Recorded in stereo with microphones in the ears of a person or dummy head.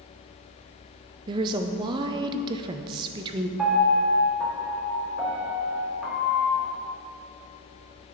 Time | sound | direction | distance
1.3 | a woman speaking | 30° right (ahead or behind) | 0.5 m
3.6 | a piano | 5° right (ahead or behind) | 1.6 m